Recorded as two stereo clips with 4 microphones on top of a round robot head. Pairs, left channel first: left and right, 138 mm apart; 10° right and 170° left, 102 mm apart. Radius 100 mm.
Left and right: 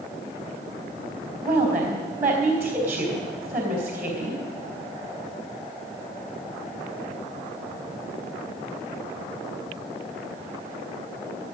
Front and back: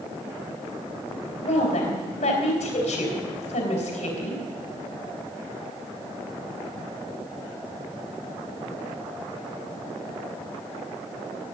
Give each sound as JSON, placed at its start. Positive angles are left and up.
{"t": 1.4, "sound": "a woman speaking", "azimuth_deg": -10, "distance_m": 4.0}